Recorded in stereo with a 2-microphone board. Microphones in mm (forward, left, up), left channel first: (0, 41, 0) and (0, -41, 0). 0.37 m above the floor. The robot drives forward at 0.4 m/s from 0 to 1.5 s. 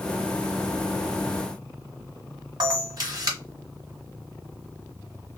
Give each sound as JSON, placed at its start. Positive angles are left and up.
{"t": 2.6, "sound": "a camera shutter", "side_deg": -55, "distance_m": 1.2}